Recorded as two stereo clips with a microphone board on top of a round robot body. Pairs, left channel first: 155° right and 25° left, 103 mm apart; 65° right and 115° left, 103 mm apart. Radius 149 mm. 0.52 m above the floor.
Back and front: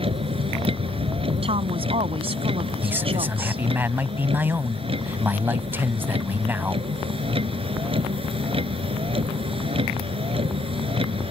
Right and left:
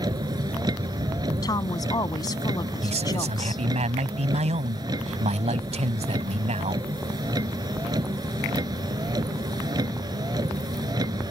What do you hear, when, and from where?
0.0 s a vehicle: 60° left
1.4 s a woman speaking: 10° right
2.8 s a man speaking: 95° left